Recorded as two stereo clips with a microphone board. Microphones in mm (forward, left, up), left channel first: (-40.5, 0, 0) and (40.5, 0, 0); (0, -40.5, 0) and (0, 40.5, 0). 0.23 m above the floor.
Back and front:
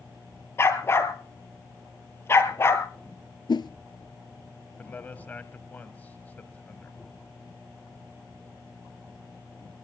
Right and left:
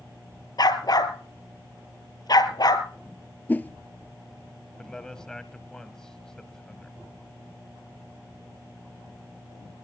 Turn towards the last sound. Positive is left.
turn(degrees=-160)